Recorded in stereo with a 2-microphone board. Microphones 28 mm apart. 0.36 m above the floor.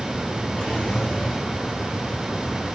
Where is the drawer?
35° left (ahead or behind), 3 m.